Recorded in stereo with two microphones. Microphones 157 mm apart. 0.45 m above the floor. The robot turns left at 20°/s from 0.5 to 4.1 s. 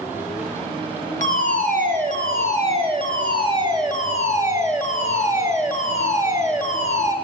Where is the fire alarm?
95° right, 4 m; by 7.2 s 155° right, 4 m.